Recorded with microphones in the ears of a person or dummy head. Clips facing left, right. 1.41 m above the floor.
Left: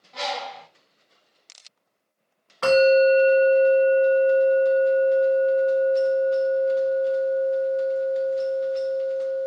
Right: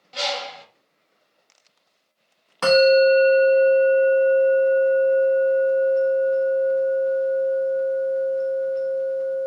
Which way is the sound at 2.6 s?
55° right (ahead or behind).